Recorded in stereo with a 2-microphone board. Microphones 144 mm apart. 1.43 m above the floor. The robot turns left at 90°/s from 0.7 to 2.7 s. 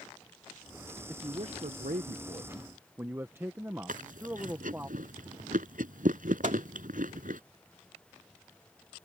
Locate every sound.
1.1 s a man speaking: 15° right; by 4.9 s 160° right
3.9 s chewing: 70° right (ahead or behind)
6.4 s a microwave: 65° right (ahead or behind)